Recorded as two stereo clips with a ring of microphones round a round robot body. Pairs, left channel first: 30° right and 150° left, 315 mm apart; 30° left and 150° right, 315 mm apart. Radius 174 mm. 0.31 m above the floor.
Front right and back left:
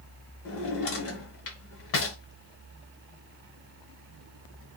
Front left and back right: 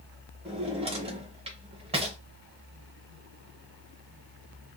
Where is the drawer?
80° right, 0.9 m.